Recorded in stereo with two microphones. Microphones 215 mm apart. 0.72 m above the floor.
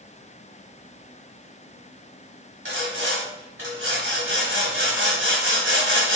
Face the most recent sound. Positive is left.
turn(degrees=-75)  # may be behind; listen again after turning